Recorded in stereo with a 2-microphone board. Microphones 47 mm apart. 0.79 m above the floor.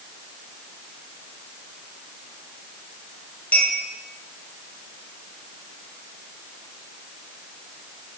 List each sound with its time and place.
3.5 s a clink: 40° left (ahead or behind), 7 m